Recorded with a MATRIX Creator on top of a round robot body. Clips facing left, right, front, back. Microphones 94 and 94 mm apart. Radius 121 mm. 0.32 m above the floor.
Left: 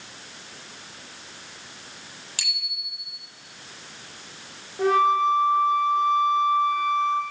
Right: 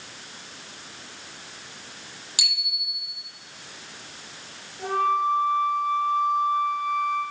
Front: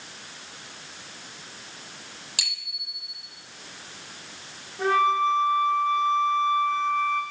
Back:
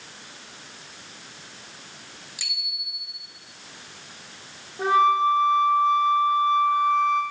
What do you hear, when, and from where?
2.4 s a bicycle bell: 15° right, 8.5 m
4.8 s a flute: 105° left, 1.9 m